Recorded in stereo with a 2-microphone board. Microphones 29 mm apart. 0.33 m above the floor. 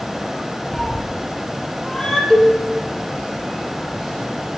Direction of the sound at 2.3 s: 10° left (ahead or behind).